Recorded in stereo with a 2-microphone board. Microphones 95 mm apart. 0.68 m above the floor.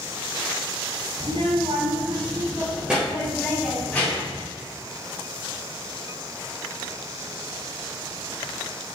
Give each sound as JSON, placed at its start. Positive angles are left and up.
{"t": 1.2, "sound": "a child speaking", "side_deg": -80, "distance_m": 1.7}